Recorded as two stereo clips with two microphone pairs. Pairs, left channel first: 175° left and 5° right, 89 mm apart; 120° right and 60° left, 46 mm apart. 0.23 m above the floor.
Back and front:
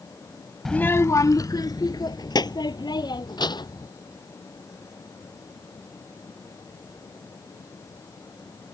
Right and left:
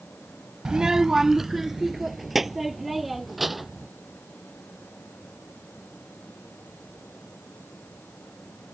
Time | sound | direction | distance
0.7 | a child speaking | 95° left | ?